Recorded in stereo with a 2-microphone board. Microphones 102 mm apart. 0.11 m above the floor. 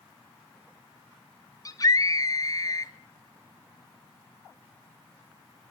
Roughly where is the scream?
Left.